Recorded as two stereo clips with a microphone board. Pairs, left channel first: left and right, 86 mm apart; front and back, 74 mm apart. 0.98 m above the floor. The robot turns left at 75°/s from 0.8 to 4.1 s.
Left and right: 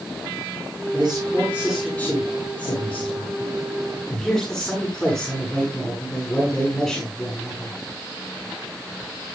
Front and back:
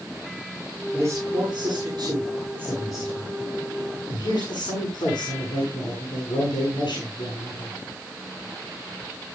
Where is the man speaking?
120° right, 8.5 m; by 7.8 s 5° left, 8.5 m.